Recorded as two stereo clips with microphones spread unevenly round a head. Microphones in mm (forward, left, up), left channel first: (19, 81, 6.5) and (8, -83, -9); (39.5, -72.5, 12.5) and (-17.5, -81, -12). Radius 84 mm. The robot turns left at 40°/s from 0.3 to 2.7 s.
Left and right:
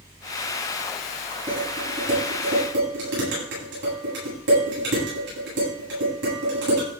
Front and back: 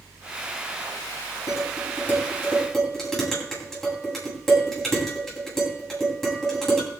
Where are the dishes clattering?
25° right, 9.5 m; by 6.9 s 75° right, 9.5 m.